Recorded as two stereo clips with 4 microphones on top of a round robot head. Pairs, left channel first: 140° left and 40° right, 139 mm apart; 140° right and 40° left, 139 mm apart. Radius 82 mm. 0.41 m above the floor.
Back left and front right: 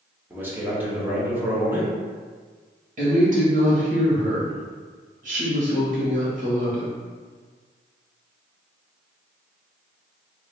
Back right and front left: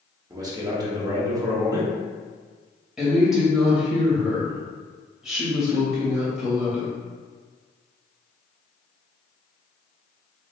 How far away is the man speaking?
About 1.2 m.